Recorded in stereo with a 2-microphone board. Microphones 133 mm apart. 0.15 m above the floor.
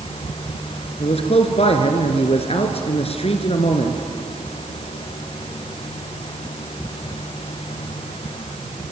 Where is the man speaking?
50° left (ahead or behind), 2.5 m.